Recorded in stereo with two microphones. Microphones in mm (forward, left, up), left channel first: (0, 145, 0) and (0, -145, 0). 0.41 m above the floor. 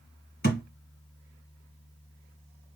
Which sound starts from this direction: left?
A thud, at 0.4 s.